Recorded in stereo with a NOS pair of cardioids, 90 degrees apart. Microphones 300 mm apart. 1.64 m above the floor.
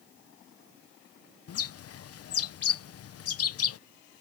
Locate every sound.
1.5 s a bird: 55° left